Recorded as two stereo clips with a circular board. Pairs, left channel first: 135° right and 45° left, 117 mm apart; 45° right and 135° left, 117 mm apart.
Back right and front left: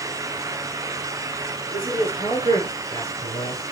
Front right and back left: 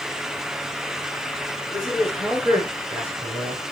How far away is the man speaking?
About 6 m.